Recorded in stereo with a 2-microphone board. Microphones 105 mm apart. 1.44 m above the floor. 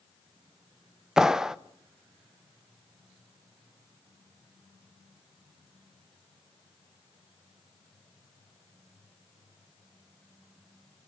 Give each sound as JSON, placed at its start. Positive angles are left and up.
{"t": 1.2, "sound": "a clap", "side_deg": -5, "distance_m": 0.7}